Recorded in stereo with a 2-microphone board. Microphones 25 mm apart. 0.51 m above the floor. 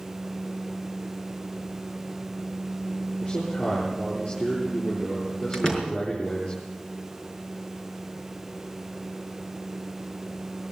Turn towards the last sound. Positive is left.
turn(degrees=25)  # may be behind; listen again after turning